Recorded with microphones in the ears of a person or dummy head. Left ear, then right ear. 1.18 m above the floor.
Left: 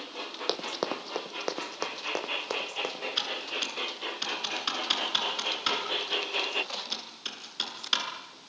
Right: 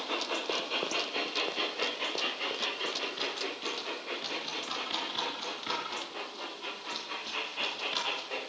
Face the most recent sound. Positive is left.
turn(degrees=55)  # may be behind; listen again after turning